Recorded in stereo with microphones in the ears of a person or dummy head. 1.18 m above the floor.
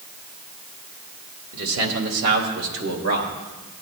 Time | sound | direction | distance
1.5 | a man speaking | 75° right (ahead or behind) | 2.5 m